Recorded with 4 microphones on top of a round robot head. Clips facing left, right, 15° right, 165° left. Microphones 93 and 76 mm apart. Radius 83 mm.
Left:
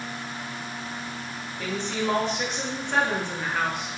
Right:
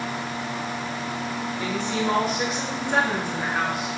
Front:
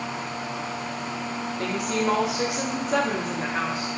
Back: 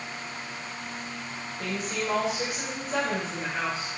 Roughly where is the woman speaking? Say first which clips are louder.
Right 1 dB, front 5 dB; ahead.